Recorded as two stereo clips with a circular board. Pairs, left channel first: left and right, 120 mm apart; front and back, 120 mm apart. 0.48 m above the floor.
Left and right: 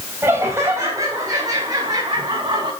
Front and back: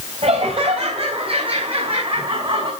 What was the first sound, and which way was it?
Laughter, 160° right.